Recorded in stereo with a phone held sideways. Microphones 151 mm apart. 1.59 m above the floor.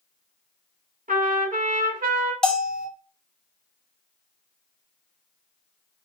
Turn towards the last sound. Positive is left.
turn(degrees=5)  # may be behind; listen again after turning